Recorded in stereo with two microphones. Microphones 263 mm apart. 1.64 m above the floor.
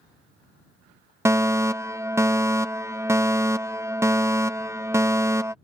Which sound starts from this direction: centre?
A fire alarm, at 1.2 s.